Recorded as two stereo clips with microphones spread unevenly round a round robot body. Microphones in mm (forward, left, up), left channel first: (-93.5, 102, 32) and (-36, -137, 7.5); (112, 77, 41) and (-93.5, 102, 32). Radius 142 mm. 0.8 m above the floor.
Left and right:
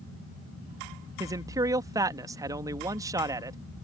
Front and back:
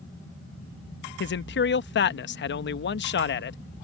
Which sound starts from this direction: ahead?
A man speaking, at 1.2 s.